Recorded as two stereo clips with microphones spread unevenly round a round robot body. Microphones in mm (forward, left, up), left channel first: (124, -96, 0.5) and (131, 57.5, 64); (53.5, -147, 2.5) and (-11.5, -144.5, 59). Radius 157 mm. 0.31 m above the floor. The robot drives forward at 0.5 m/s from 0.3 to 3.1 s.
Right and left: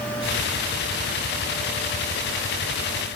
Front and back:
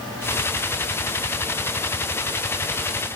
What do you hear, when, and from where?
Only background noise.